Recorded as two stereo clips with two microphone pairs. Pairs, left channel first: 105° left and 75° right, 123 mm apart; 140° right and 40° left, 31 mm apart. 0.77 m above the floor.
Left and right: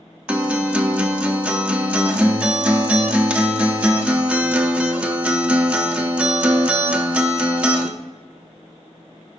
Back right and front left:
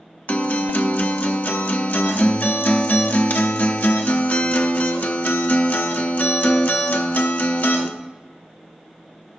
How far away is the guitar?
About 0.7 m.